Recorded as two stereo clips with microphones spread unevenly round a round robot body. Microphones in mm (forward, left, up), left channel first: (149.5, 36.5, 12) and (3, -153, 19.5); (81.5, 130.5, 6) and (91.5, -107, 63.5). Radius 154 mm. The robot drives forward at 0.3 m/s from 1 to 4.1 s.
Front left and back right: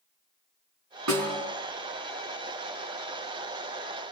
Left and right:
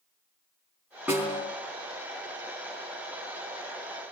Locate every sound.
1.1 s a snare drum: 175° right, 4 m